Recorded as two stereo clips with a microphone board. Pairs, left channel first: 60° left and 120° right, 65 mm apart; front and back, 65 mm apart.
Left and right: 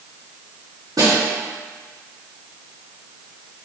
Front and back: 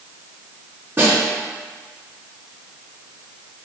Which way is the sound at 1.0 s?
125° right.